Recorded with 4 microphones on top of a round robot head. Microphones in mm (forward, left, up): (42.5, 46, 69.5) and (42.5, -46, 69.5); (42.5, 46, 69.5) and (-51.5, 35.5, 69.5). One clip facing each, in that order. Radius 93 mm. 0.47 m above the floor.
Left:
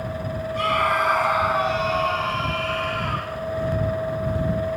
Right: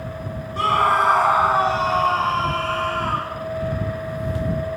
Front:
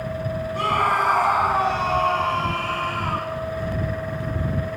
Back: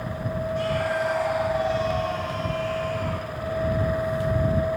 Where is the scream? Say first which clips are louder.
Right 4 dB, front 6 dB; 35° right.